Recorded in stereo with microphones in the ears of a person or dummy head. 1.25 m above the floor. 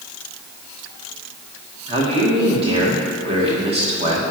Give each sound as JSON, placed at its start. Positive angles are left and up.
{"t": 1.9, "sound": "a man speaking", "side_deg": -35, "distance_m": 1.8}